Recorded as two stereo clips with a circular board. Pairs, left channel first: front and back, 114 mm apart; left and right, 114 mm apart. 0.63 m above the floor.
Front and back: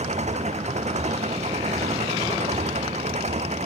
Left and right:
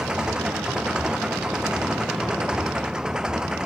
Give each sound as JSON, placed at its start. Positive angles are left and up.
{"t": 0.0, "sound": "an engine running", "azimuth_deg": -175}